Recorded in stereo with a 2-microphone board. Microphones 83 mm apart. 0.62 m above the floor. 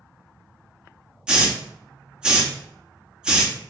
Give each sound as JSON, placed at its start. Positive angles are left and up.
{"t": 1.3, "sound": "a hiss", "side_deg": -10, "distance_m": 0.5}